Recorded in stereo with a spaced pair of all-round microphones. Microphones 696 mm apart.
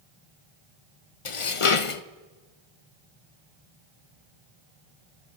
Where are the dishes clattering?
50° left (ahead or behind), 0.7 m.